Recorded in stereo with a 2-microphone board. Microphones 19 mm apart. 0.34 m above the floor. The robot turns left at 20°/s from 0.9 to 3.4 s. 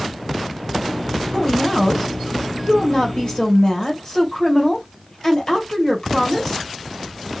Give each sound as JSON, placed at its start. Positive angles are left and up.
{"t": 1.3, "sound": "a woman speaking", "azimuth_deg": 125, "distance_m": 1.4}